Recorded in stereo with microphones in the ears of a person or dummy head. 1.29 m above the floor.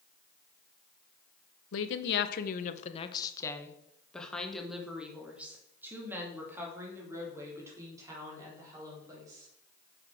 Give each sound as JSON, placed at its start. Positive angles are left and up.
{"t": 1.7, "sound": "a woman speaking", "side_deg": 70, "distance_m": 1.0}